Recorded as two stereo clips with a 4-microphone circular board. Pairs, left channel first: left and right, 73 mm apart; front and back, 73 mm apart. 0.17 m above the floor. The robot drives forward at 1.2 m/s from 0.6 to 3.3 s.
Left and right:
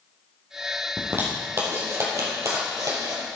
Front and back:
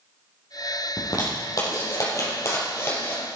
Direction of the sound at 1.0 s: 35° right.